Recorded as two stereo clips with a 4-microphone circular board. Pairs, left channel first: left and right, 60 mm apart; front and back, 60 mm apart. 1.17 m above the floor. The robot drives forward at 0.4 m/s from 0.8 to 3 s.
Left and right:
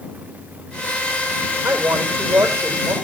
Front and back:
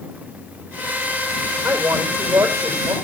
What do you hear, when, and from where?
1.6 s a woman speaking: 135° right, 4 m; by 2.9 s 140° right, 4.5 m